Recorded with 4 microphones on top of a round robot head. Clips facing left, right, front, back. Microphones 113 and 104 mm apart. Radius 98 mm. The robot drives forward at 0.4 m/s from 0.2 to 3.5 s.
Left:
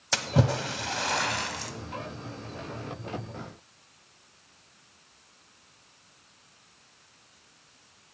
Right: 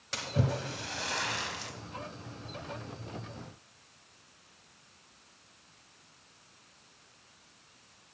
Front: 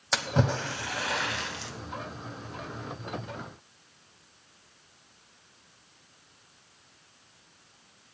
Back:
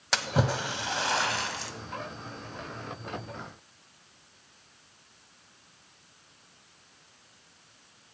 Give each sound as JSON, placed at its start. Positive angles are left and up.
{"t": 0.1, "sound": "a splash", "azimuth_deg": 90, "distance_m": 0.6}